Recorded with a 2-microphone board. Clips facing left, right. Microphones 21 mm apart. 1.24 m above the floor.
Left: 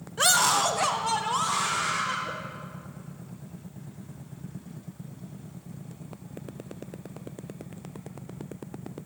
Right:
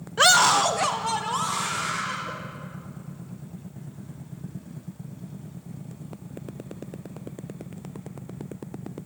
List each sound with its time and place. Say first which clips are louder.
0.2 s a scream: right 5 dB; 25° right (ahead or behind), 0.6 m; by 2.3 s 5° left (ahead or behind), 2.5 m